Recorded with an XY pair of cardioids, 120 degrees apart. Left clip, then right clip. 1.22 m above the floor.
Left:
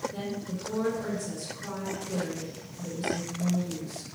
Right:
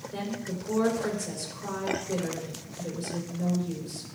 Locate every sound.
0.1 s a woman speaking: 45° right, 5 m